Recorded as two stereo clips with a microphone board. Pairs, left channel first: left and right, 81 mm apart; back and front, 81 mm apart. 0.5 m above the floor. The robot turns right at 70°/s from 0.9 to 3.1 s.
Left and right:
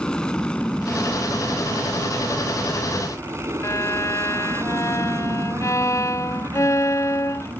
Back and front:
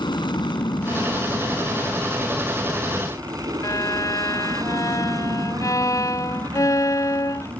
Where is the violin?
140° left.